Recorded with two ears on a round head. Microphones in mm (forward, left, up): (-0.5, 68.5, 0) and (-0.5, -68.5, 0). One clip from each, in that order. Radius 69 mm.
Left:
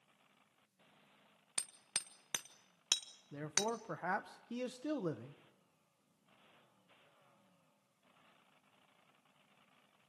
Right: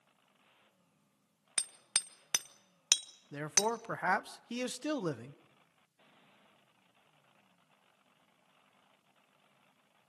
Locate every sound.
1.6 s hammering: 20° right (ahead or behind), 0.8 m
3.3 s a man speaking: 50° right (ahead or behind), 0.8 m